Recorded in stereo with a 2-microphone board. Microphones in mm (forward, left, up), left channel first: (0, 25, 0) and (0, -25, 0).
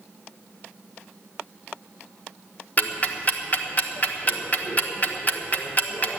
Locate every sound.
2.8 s ticking: 35° left (ahead or behind), 1.0 m